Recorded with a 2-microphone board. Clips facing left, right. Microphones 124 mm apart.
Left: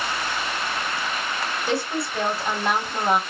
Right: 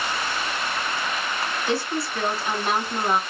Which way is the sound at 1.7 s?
60° left (ahead or behind).